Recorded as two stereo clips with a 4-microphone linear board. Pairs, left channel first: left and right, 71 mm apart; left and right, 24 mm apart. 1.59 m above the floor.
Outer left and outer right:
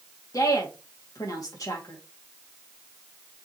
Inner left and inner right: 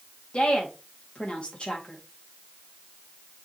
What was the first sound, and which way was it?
A woman speaking, 50° left (ahead or behind).